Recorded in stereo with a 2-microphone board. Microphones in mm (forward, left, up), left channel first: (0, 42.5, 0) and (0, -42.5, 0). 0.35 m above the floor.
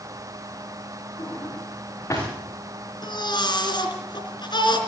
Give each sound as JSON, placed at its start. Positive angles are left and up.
{"t": 1.2, "sound": "a drawer", "side_deg": 35, "distance_m": 7.5}
{"t": 3.0, "sound": "a baby crying", "side_deg": 60, "distance_m": 3.5}